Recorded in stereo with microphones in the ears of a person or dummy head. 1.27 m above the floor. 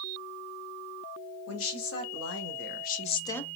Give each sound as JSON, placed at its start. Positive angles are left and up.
{"t": 1.5, "sound": "a woman speaking", "side_deg": 80, "distance_m": 1.5}